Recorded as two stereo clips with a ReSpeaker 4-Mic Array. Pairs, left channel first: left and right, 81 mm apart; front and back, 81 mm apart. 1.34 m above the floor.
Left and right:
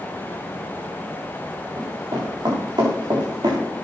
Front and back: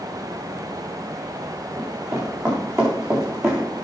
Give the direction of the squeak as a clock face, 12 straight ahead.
No squeak in this recording.